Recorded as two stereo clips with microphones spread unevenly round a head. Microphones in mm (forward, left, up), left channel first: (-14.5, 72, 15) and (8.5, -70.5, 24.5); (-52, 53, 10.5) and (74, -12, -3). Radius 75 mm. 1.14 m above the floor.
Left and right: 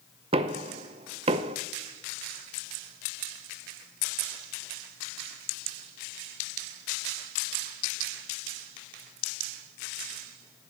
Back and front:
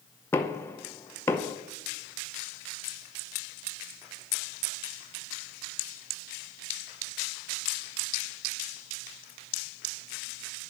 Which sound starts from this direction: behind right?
Knocking, at 0.3 s.